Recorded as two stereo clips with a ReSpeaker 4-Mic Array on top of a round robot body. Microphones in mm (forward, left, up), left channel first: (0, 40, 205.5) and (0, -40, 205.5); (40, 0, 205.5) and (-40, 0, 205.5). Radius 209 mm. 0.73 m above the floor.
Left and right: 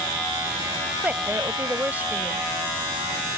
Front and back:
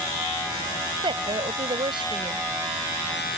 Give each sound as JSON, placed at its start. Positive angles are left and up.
{"t": 1.0, "sound": "a woman speaking", "azimuth_deg": -160}